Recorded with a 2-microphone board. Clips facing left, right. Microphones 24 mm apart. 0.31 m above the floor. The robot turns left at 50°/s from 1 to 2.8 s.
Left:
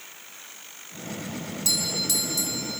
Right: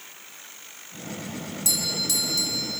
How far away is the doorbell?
About 3.5 m.